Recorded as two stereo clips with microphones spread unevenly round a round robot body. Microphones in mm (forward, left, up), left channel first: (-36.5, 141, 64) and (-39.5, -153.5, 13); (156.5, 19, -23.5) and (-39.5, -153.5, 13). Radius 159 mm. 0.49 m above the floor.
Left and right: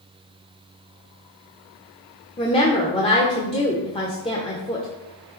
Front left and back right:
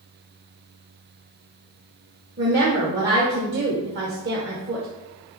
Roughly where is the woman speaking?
Behind.